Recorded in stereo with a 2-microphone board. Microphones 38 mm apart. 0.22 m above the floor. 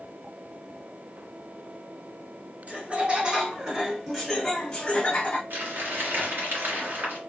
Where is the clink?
No clink in this recording.